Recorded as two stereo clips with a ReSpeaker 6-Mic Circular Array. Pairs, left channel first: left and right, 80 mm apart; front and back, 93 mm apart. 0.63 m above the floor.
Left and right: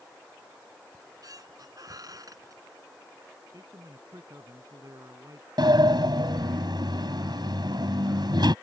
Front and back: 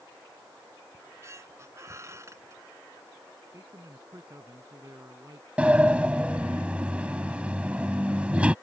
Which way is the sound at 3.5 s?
130° right.